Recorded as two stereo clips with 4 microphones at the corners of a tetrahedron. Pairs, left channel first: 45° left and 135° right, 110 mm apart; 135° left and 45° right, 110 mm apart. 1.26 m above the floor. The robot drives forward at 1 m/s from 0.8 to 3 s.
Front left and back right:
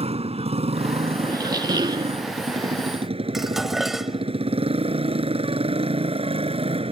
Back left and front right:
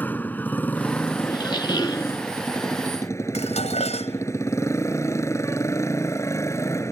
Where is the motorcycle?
150° right; by 6.9 s 160° right.